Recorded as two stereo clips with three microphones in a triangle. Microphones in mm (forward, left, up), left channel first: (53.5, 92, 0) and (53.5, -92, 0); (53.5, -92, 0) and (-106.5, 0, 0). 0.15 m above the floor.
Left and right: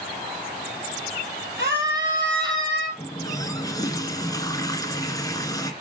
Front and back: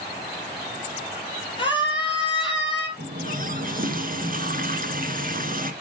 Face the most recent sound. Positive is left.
turn(degrees=155)